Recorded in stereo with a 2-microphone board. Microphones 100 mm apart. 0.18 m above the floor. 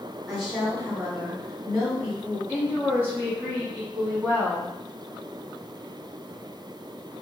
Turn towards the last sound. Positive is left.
turn(degrees=-20)  # may be behind; listen again after turning